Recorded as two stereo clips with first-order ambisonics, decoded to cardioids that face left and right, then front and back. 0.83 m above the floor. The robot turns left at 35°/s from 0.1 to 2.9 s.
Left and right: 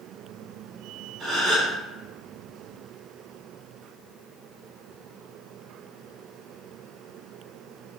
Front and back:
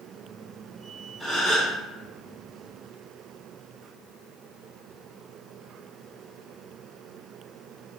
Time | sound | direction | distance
1.2 | a gasp | 110° right | 1.2 m